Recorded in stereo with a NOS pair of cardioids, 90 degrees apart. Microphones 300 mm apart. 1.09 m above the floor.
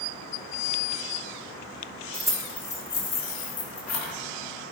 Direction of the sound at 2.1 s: 10° right.